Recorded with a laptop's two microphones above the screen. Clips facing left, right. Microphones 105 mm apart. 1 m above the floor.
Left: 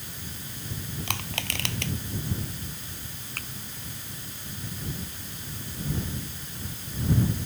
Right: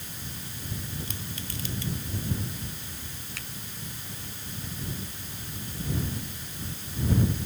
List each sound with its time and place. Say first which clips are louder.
1.1 s crushing: left 5 dB; 85° left
3.4 s a finger snap: left 2 dB; 55° left (ahead or behind)